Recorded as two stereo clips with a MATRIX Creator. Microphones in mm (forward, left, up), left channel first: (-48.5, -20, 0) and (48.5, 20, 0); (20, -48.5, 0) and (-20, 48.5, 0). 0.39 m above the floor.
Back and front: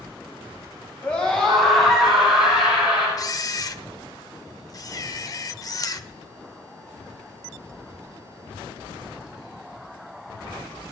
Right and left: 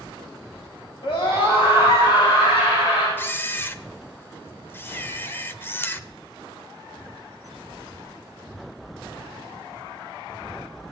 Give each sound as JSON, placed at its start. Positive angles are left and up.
{"t": 1.0, "sound": "a scream", "azimuth_deg": -85, "distance_m": 2.5}
{"t": 3.2, "sound": "a camera shutter", "azimuth_deg": -125, "distance_m": 0.6}